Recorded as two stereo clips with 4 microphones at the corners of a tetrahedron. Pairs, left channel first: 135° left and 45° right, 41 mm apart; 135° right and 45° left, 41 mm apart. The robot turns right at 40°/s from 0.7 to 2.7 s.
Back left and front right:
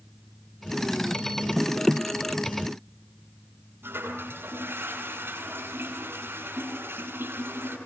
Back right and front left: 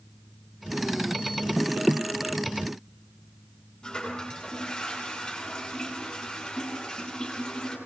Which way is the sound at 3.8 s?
70° right.